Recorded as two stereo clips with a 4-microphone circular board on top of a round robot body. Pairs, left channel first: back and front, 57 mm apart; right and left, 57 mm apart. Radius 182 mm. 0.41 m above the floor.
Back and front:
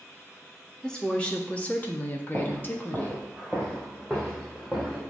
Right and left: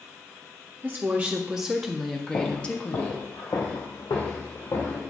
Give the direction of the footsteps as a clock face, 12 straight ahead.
2 o'clock.